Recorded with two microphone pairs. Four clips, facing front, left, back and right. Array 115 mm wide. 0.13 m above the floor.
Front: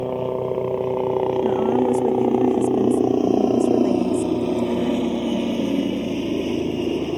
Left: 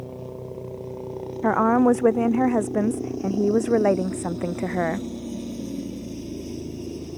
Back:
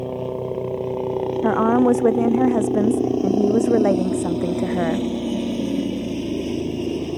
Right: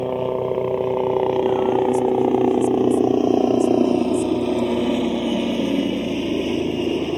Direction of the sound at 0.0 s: 80° right.